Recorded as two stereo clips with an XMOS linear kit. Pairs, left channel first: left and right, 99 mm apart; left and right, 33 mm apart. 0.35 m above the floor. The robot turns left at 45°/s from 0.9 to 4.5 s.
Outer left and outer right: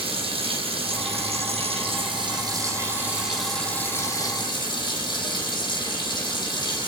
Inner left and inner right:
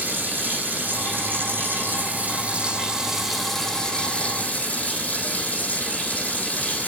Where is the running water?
65° right, 4.5 m; by 6.9 s 135° left, 4.5 m.